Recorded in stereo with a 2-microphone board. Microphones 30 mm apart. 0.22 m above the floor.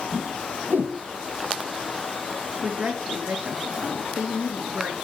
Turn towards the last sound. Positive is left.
turn(degrees=-35)  # may be behind; listen again after turning